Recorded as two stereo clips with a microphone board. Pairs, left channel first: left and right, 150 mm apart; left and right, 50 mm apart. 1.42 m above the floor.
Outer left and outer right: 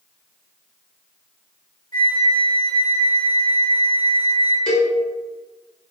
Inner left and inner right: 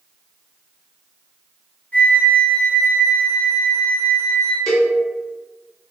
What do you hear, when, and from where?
1.9 s a flute: 30° left (ahead or behind), 1.0 m
4.7 s a cowbell: 5° left (ahead or behind), 1.1 m